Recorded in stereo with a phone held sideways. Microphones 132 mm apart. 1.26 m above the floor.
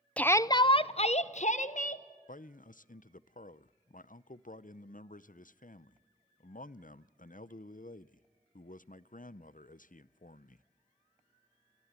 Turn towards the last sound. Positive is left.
turn(degrees=75)  # may be behind; listen again after turning